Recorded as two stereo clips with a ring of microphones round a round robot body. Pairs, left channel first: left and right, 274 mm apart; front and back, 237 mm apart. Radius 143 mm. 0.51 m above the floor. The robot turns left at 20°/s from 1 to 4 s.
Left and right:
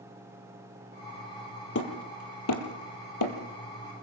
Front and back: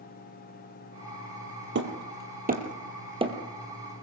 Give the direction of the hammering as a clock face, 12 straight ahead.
7 o'clock.